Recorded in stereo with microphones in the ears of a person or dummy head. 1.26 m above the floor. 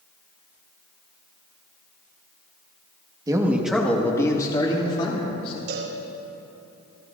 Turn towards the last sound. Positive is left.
turn(degrees=-65)  # may be behind; listen again after turning